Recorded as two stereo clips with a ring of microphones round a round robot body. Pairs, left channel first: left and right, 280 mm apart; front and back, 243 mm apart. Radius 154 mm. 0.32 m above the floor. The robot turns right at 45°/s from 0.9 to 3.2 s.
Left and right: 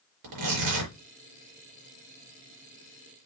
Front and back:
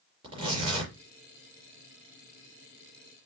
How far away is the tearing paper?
About 5.5 m.